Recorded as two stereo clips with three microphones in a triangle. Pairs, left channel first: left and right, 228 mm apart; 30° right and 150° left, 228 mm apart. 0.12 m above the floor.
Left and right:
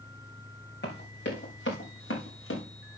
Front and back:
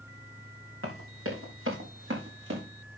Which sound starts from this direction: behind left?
Running footsteps, at 0.8 s.